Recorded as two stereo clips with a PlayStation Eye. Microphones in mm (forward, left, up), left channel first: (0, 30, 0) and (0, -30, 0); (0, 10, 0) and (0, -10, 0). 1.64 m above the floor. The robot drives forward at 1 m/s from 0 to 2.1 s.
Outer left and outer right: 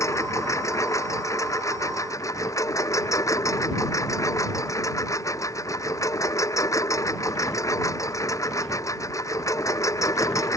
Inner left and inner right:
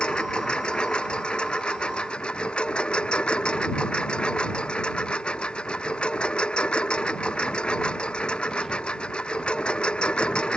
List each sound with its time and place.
0.0 s a lawn mower: 55° left (ahead or behind); by 10.6 s 60° left (ahead or behind)